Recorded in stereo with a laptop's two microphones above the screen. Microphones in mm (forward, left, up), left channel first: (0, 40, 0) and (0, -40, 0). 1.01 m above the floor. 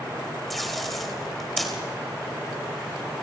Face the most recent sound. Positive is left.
turn(degrees=0)  # may be behind; listen again after turning